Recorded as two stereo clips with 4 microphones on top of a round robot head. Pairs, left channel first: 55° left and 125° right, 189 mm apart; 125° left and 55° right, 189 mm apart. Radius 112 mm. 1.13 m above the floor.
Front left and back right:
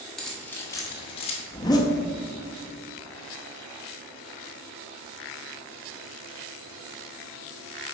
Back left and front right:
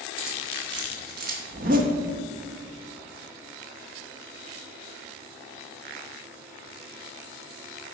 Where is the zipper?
15° right, 0.6 m.